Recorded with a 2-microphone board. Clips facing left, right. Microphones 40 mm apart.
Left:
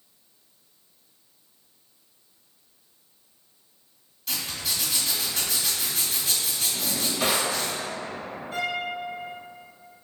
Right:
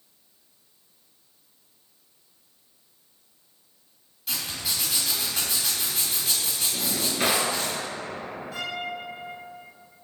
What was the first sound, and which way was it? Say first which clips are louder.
A zipper: even; 5° right (ahead or behind).